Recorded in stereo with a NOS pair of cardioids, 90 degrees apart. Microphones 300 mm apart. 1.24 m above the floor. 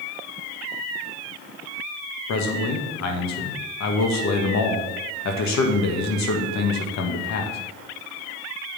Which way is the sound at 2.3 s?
65° left.